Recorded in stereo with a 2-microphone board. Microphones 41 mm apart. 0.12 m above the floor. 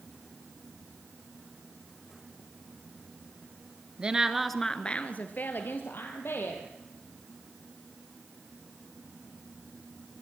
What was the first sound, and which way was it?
A woman speaking, 25° right (ahead or behind).